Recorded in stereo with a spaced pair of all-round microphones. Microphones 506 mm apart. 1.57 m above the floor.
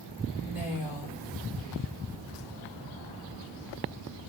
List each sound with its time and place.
0.4 s a woman speaking: 40° left (ahead or behind), 4 m